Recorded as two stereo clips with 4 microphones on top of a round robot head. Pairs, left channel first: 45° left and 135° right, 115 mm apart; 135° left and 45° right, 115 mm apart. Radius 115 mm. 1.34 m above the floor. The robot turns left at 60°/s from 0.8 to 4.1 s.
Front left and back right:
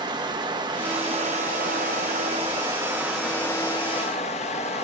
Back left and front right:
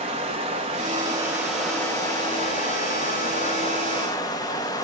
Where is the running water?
85° right, 1.2 m; by 4.8 s 75° left, 1.2 m.